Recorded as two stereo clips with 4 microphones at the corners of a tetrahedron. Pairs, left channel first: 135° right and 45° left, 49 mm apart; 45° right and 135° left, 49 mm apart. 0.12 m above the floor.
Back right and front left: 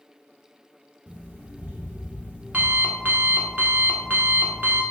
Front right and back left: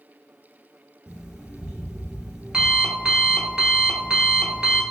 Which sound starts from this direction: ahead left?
An alarm clock, at 1.1 s.